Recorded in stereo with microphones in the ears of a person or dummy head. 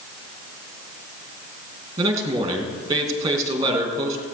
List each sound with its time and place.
2.0 s a man speaking: 25° right (ahead or behind), 2.5 m